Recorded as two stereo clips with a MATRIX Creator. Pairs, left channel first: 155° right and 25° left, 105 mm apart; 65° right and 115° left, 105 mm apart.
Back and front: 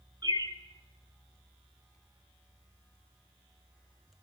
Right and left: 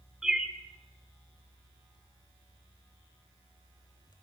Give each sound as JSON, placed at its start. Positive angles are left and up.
{"t": 0.2, "sound": "a bird", "azimuth_deg": 30, "distance_m": 0.9}